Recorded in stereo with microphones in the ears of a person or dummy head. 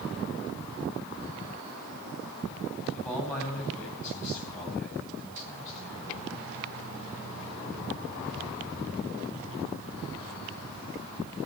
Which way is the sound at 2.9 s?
15° left (ahead or behind).